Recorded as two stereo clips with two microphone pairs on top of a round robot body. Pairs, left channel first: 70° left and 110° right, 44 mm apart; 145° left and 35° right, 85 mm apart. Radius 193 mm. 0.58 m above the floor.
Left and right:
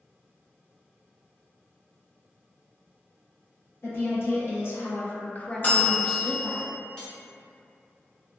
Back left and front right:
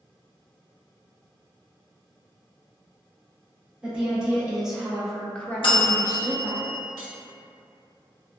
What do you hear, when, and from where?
3.8 s a woman speaking: 45° left, 1.3 m; by 6.6 s 165° right, 0.9 m
5.6 s a bell: 125° left, 0.5 m
7.0 s cutlery clinking: straight ahead, 1.1 m